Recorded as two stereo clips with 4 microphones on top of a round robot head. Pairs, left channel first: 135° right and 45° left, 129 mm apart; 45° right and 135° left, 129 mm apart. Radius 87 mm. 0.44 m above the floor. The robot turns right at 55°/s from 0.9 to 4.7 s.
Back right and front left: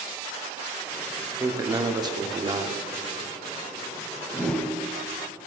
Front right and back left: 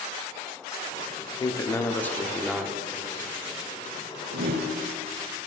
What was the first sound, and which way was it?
A man speaking, 10° right.